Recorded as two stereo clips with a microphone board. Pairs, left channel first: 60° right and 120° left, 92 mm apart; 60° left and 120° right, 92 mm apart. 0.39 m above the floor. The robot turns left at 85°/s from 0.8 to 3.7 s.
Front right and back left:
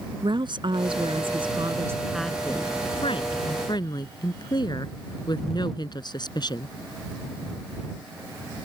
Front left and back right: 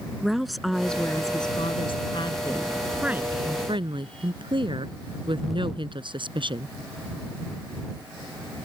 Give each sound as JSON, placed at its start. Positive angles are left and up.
{"t": 0.2, "sound": "a woman speaking", "azimuth_deg": 150}